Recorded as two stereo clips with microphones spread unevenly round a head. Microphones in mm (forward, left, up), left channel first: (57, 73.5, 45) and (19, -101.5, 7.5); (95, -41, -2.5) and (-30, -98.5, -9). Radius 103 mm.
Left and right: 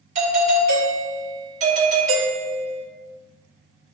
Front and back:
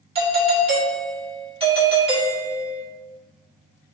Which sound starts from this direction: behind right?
A doorbell, at 0.1 s.